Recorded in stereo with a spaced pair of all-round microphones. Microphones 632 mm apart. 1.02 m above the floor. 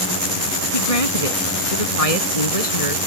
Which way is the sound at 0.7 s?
60° left (ahead or behind).